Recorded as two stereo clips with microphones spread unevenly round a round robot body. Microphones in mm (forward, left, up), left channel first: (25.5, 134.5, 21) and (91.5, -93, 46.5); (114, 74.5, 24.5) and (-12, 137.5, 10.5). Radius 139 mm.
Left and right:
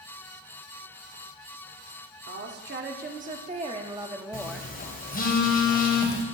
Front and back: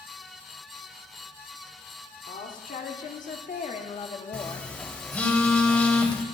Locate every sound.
2.3 s a woman speaking: 35° right, 1.7 m; by 4.7 s 25° left, 1.2 m
4.3 s a phone buzzing: 55° left, 2.5 m